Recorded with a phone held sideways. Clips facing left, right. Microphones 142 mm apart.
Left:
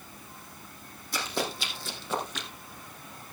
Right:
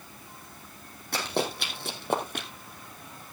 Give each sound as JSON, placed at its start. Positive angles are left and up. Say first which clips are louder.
{"t": 1.1, "sound": "running footsteps", "louder": "right 3 dB", "side_deg": -65, "distance_m": 3.5}